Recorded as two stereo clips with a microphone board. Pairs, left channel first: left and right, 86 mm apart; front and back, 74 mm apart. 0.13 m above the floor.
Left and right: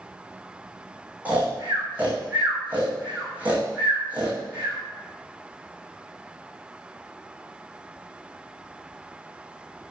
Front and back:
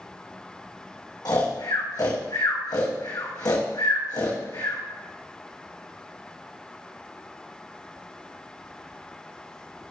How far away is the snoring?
About 3.5 m.